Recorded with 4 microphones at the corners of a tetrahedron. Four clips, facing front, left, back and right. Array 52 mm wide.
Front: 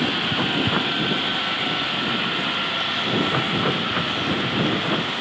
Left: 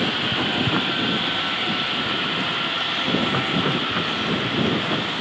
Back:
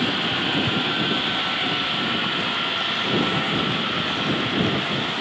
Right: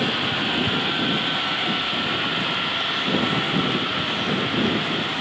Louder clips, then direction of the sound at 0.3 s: Left 1 dB, front 1 dB; 25° left.